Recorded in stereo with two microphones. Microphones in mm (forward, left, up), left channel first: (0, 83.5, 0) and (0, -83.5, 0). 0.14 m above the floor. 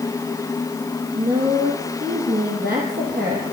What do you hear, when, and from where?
1.1 s a woman speaking: 65° right (ahead or behind), 5 m